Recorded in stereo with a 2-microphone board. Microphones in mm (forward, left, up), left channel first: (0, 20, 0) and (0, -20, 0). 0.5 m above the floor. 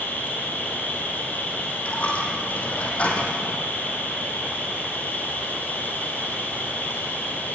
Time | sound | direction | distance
0.0 | an insect | 55° left (ahead or behind) | 4.5 m
1.9 | a dropped coin | 35° left (ahead or behind) | 4.5 m